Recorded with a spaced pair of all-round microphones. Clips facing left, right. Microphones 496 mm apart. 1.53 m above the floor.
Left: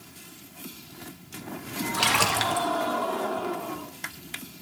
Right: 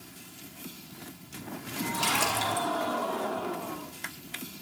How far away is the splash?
About 2 m.